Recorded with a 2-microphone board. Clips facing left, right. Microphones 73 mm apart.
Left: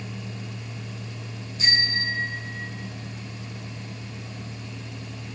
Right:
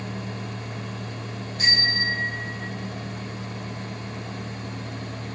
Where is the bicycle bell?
55° right (ahead or behind), 6 m; by 2.7 s 50° right (ahead or behind), 4.5 m.